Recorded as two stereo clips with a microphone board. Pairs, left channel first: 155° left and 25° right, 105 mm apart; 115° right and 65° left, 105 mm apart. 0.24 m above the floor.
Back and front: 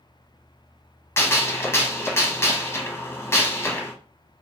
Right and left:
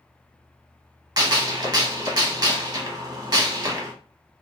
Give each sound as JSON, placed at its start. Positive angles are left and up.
{"t": 1.2, "sound": "a gunshot", "azimuth_deg": 100, "distance_m": 0.6}